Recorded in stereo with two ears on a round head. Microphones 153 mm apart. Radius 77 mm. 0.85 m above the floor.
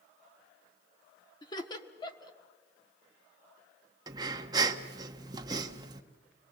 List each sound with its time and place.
1.4 s laughter: 25° left (ahead or behind), 1.5 m
4.1 s breathing: 25° right (ahead or behind), 1.0 m